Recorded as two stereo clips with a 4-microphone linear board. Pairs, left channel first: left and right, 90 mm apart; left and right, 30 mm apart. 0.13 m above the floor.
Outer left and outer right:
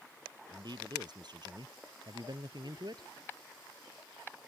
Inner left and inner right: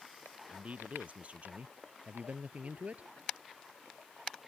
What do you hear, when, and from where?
0.5 s a man speaking: 55° right (ahead or behind)